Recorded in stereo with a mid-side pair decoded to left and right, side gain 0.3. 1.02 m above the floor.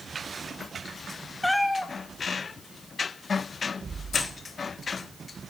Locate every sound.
1.4 s a cat meowing: 15° left, 1.4 m
4.1 s keys jangling: 70° left, 4.5 m